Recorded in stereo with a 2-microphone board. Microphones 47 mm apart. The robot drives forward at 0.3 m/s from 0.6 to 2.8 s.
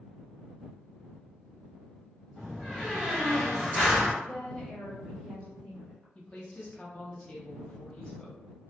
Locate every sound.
2.4 s a door slam: 5° left (ahead or behind), 1.3 m
4.2 s a woman speaking: 25° left (ahead or behind), 1.2 m
6.2 s a woman speaking: 25° left (ahead or behind), 0.6 m